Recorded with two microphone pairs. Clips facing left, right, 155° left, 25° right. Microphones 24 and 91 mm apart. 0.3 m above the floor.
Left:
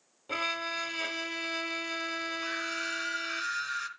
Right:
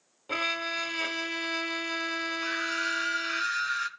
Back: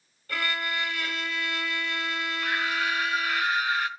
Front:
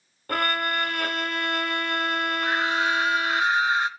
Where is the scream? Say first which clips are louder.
Right 4 dB, front 3 dB; 20° right, 0.9 m.